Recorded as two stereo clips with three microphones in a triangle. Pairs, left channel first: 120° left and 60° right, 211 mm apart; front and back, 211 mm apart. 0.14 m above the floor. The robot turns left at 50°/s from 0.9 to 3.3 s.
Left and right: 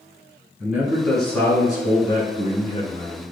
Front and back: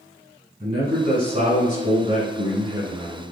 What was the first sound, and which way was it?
A man speaking, 140° right.